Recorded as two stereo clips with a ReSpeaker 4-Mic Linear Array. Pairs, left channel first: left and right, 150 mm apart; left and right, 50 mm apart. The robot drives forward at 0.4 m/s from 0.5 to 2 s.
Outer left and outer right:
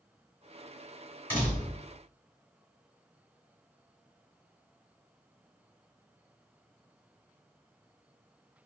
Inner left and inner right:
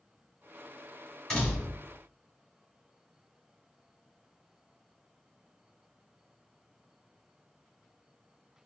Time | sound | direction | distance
1.3 | a door slam | 10° left (ahead or behind) | 1.9 m